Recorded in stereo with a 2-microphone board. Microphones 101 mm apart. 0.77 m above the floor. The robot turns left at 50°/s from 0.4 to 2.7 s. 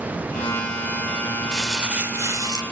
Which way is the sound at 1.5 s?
5° left.